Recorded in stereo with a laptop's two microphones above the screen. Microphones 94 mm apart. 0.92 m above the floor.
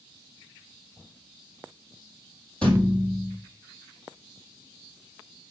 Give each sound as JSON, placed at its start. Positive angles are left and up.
{"t": 2.6, "sound": "a thud", "side_deg": 10, "distance_m": 1.8}